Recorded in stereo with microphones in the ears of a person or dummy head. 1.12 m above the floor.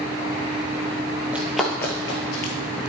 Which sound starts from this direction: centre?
Running footsteps, at 1.3 s.